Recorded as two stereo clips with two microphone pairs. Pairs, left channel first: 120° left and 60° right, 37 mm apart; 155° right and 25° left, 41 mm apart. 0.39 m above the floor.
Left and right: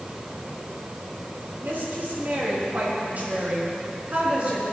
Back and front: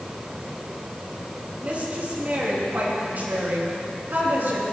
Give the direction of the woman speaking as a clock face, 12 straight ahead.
1 o'clock.